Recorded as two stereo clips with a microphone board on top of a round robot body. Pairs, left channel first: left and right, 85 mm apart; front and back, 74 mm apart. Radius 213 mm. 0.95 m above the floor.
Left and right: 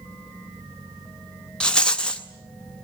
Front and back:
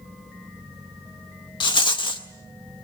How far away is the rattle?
About 0.7 m.